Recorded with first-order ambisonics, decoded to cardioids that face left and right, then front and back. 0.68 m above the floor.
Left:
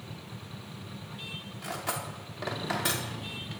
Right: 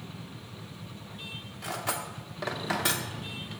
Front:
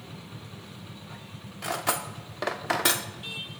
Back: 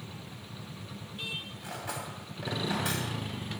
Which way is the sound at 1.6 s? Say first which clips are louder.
Right 2 dB, front 9 dB; 5° right.